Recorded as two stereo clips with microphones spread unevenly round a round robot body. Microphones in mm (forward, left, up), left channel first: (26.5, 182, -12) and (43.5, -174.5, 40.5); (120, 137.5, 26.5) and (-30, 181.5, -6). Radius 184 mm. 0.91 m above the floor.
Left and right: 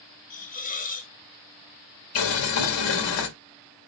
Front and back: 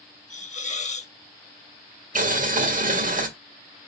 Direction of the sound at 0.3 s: 25° left.